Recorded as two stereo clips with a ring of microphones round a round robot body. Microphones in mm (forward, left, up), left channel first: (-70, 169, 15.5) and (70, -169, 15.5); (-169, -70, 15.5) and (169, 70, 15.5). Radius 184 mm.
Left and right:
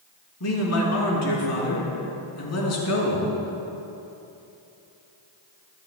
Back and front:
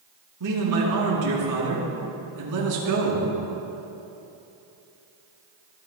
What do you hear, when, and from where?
0.4 s a man speaking: 65° left, 4.5 m